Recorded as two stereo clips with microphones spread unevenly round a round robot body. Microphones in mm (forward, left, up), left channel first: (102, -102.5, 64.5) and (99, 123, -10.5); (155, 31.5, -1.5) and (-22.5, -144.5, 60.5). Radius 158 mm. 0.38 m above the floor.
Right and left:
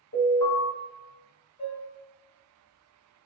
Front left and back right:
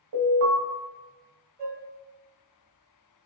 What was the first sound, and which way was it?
An alarm, 135° right.